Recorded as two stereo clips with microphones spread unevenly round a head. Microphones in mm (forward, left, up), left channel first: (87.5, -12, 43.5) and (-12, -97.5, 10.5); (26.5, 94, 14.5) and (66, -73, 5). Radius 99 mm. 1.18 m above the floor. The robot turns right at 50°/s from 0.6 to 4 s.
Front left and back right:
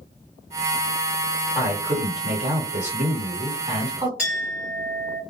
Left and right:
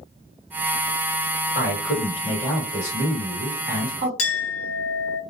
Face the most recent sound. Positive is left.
turn(degrees=130)